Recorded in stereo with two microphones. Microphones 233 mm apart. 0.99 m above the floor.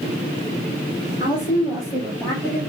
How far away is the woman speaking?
About 2.5 m.